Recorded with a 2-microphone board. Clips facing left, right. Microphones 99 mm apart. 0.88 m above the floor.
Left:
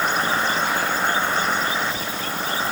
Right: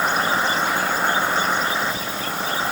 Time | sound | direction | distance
0.0 | an insect | 10° right (ahead or behind) | 0.8 m